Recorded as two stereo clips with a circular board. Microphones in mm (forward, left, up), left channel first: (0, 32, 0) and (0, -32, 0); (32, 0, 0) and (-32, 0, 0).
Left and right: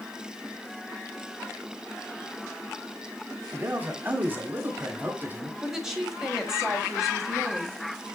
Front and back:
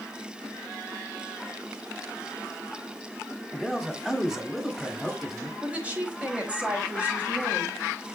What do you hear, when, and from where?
3.5 s a man speaking: 100° right, 1.0 m
5.6 s a woman speaking: 160° right, 1.1 m